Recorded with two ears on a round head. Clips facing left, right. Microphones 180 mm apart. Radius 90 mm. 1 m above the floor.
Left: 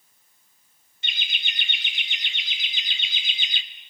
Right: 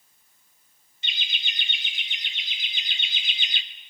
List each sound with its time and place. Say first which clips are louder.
1.0 s laughter: left 1 dB; 45° left (ahead or behind), 3 m; by 3.6 s 75° left (ahead or behind), 2.5 m